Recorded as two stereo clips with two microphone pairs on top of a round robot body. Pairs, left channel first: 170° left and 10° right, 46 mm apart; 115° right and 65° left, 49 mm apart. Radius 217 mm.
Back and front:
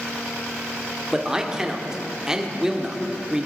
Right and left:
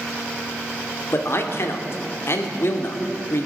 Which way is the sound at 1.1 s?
90° right.